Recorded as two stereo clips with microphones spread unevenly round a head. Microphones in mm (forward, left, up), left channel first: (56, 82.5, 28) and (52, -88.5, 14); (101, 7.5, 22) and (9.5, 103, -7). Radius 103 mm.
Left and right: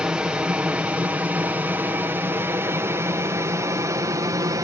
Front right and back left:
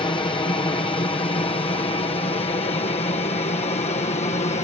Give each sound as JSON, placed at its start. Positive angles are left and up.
{"t": 0.0, "sound": "an aircraft", "azimuth_deg": -15}